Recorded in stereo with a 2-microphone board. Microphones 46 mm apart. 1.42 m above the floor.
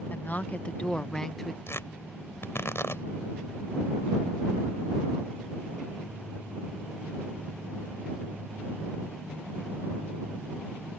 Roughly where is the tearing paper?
Left.